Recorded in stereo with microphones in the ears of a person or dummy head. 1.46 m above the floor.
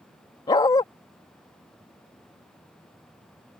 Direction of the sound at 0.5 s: 20° left (ahead or behind).